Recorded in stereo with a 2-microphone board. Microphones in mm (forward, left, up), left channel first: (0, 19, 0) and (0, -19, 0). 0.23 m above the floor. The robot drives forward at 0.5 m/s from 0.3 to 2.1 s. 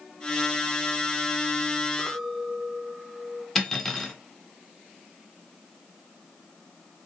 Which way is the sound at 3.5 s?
5° left (ahead or behind).